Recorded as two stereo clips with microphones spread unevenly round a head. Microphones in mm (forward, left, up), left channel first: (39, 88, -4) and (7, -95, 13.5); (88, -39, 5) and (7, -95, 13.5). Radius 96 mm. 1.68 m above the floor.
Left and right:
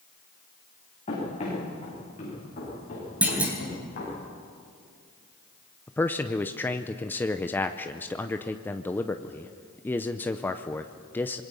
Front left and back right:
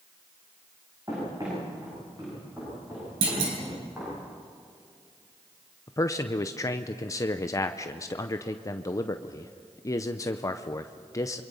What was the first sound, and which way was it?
Running footsteps, 140° left.